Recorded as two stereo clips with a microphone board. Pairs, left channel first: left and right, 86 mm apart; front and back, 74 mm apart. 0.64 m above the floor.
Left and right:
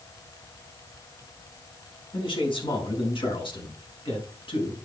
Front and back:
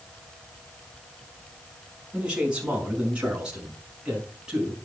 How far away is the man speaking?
About 5.5 m.